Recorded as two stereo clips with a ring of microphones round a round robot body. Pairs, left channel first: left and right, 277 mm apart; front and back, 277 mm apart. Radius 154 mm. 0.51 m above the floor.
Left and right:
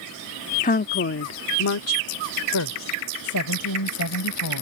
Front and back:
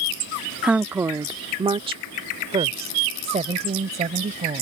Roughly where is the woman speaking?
Left.